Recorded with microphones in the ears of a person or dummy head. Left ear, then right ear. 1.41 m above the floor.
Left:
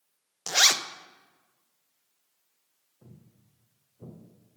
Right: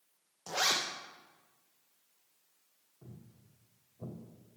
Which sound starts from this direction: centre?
Footsteps, at 3.0 s.